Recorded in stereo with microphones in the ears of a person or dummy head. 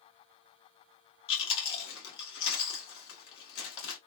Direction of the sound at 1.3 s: 75° left (ahead or behind).